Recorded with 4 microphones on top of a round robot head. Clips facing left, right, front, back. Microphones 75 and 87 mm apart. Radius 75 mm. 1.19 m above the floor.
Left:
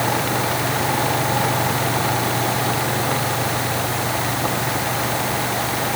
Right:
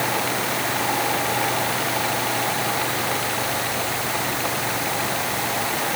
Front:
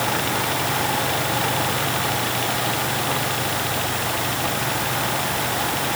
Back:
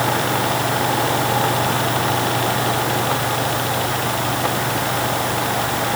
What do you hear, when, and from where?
Only background noise.